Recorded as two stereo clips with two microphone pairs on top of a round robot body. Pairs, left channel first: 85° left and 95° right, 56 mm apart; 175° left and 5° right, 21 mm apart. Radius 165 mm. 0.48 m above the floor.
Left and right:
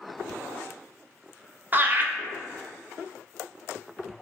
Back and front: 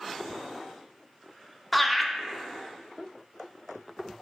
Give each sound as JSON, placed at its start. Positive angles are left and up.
{"t": 1.7, "sound": "laughter", "azimuth_deg": -75, "distance_m": 0.8}